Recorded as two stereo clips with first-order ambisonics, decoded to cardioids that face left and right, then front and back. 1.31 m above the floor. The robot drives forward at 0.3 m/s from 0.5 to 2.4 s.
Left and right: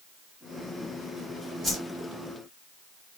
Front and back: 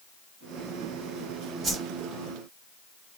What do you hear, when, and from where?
1.6 s a whoosh: 160° right, 1.1 m